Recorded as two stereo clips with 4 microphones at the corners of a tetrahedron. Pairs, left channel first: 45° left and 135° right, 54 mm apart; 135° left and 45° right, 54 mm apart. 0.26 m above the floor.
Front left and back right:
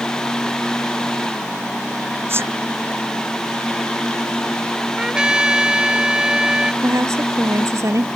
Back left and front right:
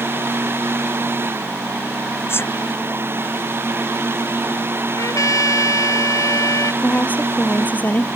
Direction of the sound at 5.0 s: 150° left.